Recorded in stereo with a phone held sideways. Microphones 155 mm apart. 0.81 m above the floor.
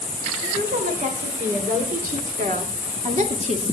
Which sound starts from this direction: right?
A woman speaking, at 0.4 s.